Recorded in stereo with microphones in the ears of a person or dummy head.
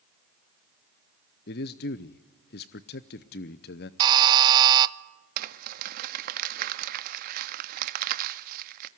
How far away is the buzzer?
About 0.5 m.